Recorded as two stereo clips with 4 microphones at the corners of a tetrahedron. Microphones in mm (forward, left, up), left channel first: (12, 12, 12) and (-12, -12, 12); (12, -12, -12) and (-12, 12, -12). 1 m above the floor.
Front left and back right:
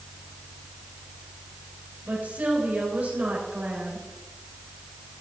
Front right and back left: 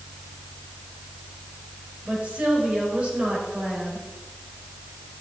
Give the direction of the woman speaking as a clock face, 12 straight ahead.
6 o'clock.